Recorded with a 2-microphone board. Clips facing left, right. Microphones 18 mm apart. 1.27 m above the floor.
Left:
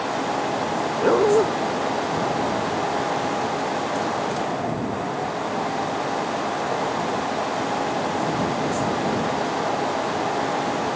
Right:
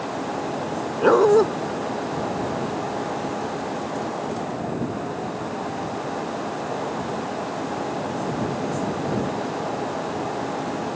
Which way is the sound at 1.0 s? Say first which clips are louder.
Right 3 dB; 20° right (ahead or behind).